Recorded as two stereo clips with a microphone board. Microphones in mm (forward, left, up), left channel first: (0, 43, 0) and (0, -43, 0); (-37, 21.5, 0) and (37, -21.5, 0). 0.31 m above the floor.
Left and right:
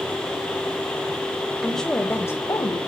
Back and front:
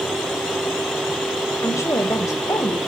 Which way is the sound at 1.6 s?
175° right.